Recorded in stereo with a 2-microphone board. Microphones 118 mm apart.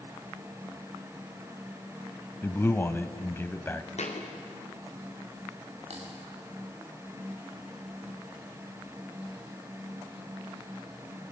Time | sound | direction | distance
2.4 | a man speaking | 20° left (ahead or behind) | 1.1 m
4.0 | a thud | 70° left (ahead or behind) | 4.5 m
5.9 | typing on a keyboard | 60° right (ahead or behind) | 7.5 m